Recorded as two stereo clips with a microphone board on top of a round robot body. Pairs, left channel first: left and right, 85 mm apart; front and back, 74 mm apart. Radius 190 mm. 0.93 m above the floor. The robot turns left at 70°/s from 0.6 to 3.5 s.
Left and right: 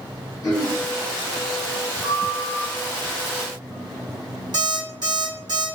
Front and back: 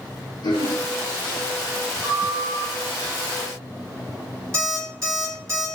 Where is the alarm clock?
125° right, 1.7 m.